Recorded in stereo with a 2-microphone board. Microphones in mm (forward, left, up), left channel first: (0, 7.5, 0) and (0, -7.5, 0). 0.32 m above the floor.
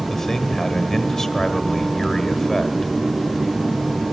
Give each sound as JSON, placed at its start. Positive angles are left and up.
{"t": 0.1, "sound": "a man speaking", "side_deg": 30, "distance_m": 1.6}